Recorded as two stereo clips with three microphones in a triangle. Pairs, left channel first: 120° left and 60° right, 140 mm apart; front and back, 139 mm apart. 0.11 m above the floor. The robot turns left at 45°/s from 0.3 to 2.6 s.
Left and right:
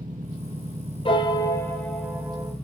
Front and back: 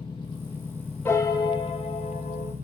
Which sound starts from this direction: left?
A piano, at 1.1 s.